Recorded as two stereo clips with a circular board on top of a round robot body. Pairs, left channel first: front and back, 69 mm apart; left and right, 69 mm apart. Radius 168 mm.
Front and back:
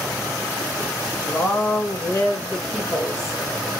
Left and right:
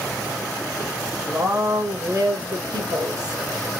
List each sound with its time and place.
1.2 s a woman speaking: 50° right, 1.7 m; by 3.4 s 95° right, 1.3 m